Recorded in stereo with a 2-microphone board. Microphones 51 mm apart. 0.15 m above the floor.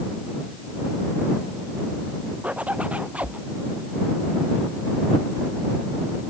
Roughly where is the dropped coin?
No dropped coin in this recording.